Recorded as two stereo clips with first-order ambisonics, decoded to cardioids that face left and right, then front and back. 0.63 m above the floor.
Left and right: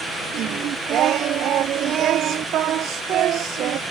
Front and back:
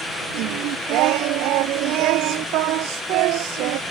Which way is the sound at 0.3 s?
145° right.